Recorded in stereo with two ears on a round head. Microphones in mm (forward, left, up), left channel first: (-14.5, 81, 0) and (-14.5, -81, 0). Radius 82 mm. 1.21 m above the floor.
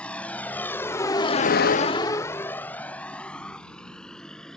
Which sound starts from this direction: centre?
A vehicle, at 0.0 s.